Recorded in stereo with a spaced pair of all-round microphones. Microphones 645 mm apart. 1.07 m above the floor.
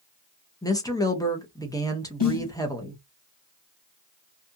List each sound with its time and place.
0.6 s a woman speaking: 5° left (ahead or behind), 0.8 m
2.2 s a snare drum: 40° left (ahead or behind), 0.9 m